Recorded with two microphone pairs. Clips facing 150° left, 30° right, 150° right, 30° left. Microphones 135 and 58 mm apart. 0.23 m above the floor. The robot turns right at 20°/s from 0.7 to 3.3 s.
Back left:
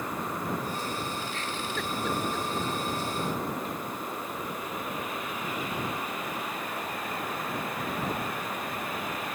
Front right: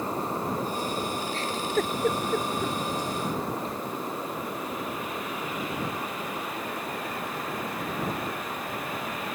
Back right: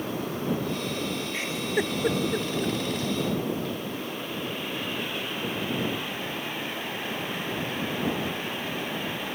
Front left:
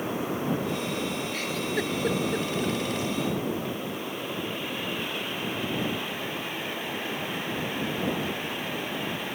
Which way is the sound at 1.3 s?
80° right.